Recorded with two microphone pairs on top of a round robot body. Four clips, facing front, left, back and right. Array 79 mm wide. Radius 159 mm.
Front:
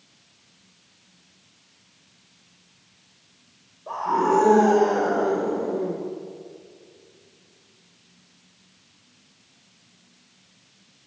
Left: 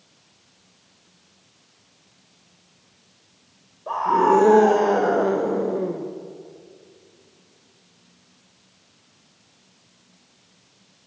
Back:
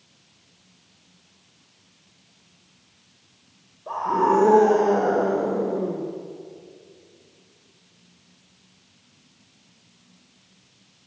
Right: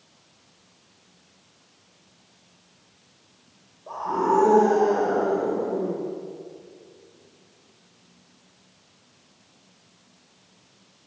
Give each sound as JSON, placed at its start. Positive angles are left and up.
{"t": 3.9, "sound": "a scream", "azimuth_deg": 90, "distance_m": 2.5}